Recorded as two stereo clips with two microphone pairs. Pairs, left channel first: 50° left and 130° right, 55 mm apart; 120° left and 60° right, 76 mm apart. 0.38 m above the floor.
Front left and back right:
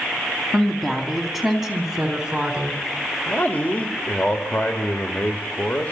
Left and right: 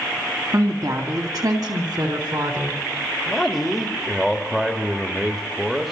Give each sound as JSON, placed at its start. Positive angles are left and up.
{"t": 0.5, "sound": "a woman speaking", "azimuth_deg": -30, "distance_m": 2.5}
{"t": 3.3, "sound": "a man speaking", "azimuth_deg": 30, "distance_m": 1.5}